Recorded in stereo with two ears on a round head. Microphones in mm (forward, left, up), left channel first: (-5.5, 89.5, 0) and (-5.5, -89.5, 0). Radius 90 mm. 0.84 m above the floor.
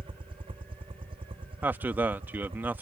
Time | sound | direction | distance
0.0 | a helicopter | 30° right (ahead or behind) | ?
1.6 | a man speaking | 10° right (ahead or behind) | ?